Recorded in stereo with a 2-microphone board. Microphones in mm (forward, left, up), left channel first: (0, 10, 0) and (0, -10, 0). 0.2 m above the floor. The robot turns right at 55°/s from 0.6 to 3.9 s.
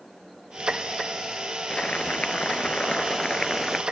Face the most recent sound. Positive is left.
turn(degrees=180)